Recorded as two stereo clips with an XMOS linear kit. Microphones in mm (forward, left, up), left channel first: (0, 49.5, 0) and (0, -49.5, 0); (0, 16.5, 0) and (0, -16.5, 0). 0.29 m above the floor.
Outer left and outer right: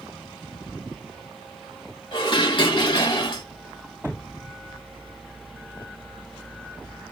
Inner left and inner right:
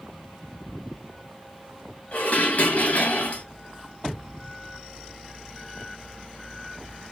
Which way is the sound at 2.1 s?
55° left (ahead or behind).